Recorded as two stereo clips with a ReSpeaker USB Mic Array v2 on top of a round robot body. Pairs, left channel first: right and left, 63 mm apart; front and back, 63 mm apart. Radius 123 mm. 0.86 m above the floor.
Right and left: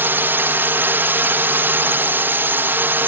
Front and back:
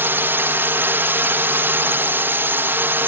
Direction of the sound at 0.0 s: 135° left.